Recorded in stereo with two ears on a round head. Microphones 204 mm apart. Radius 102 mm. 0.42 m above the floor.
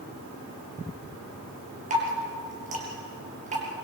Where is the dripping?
35° right (ahead or behind), 5 m.